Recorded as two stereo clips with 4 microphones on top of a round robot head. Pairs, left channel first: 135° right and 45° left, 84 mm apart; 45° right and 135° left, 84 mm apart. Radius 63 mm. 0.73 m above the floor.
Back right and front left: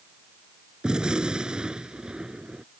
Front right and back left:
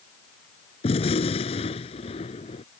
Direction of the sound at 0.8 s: 40° right.